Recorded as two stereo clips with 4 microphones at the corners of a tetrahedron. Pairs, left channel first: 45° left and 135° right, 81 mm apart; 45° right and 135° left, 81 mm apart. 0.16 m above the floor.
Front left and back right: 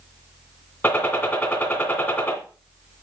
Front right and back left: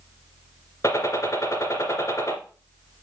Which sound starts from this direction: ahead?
A gunshot, at 0.8 s.